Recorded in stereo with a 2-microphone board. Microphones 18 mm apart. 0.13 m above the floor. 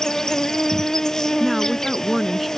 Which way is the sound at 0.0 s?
30° left (ahead or behind).